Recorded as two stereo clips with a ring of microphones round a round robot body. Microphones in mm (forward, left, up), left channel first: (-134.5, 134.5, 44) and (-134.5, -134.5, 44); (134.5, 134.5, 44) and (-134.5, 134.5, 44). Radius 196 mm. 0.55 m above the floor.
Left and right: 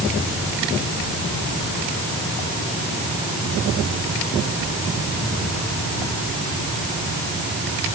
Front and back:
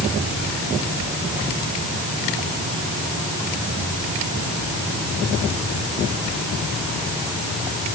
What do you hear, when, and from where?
Only background noise.